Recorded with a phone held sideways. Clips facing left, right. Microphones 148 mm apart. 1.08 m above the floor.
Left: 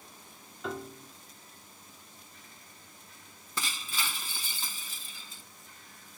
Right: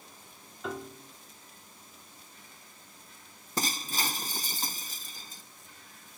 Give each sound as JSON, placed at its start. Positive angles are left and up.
{"t": 0.6, "sound": "a piano", "side_deg": 0}
{"t": 3.6, "sound": "breaking glass", "side_deg": -40}